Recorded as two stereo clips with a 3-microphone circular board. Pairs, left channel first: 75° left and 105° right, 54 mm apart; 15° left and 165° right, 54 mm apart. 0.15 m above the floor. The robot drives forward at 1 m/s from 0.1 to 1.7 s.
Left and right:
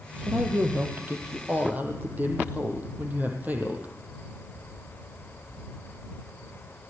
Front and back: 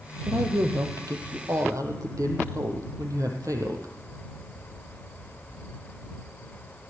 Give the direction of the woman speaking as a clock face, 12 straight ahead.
5 o'clock.